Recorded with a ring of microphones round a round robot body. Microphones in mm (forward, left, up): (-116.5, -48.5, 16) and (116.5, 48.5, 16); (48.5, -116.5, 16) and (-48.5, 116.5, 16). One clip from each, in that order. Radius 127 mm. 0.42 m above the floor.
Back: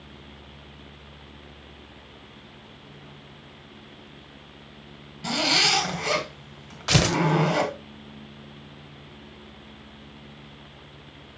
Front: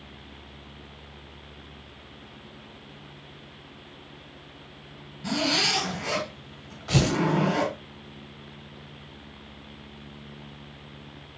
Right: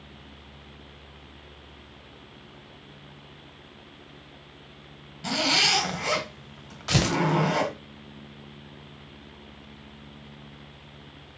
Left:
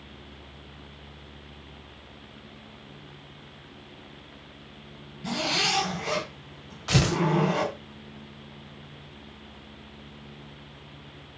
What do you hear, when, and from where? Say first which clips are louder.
5.2 s a zipper: back 3 dB, right 4 dB; 100° right, 3.5 m
6.9 s tearing paper: back 4 dB, right 1 dB; 150° right, 1.7 m